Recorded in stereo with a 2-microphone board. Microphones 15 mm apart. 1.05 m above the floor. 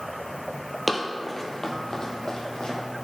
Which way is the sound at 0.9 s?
10° right (ahead or behind).